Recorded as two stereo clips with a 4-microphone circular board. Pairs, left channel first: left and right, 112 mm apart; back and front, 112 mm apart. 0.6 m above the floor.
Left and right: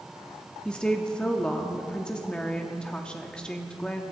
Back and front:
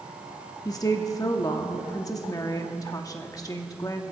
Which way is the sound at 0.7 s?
165° left.